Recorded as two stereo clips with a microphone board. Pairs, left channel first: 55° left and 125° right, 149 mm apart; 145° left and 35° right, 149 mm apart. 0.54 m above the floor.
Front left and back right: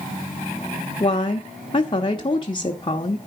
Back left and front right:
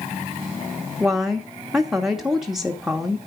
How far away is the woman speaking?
About 1.0 m.